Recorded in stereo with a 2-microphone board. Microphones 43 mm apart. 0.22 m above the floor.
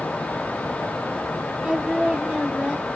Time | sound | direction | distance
1.6 | singing | 25° right (ahead or behind) | 1.2 m